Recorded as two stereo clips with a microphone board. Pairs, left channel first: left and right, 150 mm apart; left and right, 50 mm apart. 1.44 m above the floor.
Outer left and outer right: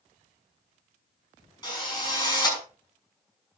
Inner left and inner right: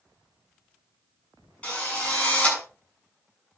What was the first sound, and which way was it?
A drill, 30° left (ahead or behind).